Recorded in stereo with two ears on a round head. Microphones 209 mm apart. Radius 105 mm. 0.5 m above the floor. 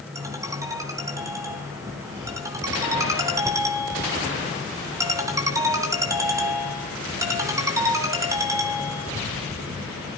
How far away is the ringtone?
About 3 m.